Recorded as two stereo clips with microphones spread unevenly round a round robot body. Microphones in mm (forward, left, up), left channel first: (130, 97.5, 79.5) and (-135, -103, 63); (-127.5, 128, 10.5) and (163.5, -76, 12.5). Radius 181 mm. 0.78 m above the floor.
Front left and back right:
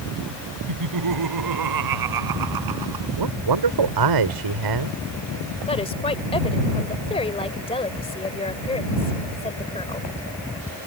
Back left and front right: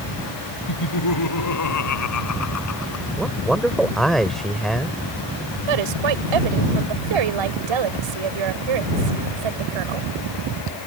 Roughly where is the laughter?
Behind.